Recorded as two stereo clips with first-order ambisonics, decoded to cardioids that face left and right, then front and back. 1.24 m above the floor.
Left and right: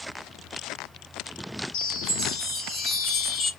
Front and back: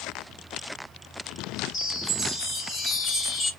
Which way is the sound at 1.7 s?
65° left.